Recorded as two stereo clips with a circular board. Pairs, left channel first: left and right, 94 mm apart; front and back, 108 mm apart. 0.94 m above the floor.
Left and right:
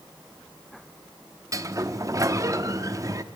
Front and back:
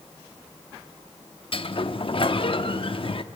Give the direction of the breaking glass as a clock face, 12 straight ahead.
I don't hear breaking glass.